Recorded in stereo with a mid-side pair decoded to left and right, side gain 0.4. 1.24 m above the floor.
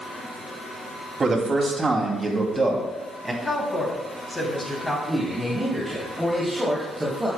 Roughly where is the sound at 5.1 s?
Ahead.